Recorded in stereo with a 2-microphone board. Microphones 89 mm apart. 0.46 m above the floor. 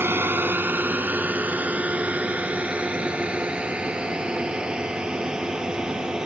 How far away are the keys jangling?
No keys jangling in this recording.